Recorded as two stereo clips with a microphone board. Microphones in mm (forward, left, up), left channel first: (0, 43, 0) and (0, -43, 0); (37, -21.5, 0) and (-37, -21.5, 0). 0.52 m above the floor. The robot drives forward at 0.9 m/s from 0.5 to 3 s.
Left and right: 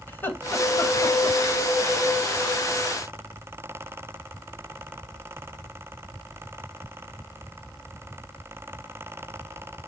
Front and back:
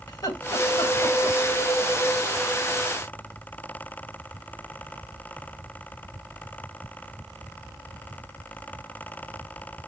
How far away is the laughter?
About 3 m.